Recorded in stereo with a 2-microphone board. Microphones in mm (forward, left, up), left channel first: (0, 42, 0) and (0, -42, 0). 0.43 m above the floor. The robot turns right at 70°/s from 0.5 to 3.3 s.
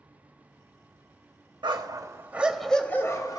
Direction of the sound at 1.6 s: 65° right.